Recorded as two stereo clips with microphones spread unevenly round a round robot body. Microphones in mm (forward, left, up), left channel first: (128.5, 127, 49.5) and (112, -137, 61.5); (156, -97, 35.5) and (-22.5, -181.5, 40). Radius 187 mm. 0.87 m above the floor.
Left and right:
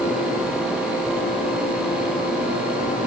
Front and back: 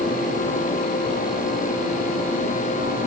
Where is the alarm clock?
No alarm clock in this recording.